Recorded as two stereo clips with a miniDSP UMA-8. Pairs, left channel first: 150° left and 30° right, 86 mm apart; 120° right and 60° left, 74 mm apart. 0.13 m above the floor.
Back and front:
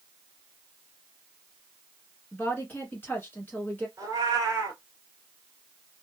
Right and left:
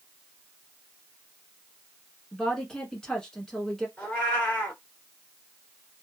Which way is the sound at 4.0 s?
55° right.